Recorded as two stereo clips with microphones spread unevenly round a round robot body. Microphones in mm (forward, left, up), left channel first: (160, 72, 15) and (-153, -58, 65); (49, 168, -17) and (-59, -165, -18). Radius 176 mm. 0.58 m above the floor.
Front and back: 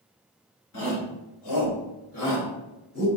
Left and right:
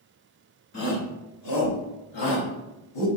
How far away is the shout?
About 2.5 m.